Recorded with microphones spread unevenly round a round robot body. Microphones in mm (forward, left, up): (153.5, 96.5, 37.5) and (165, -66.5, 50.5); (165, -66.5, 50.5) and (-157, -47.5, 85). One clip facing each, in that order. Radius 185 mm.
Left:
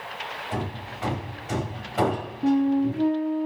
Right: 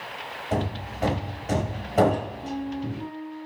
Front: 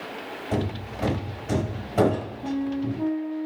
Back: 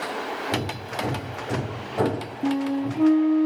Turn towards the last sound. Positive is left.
turn(degrees=130)